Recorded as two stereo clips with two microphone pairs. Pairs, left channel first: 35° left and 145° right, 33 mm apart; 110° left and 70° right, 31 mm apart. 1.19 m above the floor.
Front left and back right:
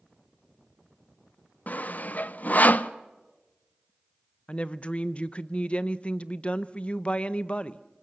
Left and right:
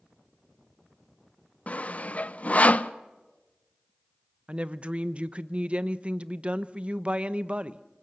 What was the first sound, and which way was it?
Sawing, 65° left.